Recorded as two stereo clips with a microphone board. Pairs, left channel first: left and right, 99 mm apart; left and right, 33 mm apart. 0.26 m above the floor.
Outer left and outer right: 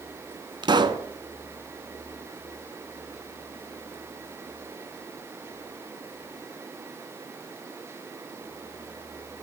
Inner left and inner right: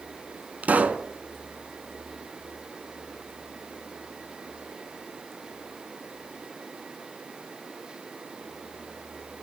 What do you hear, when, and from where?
0.6 s a pop: 50° right (ahead or behind), 0.9 m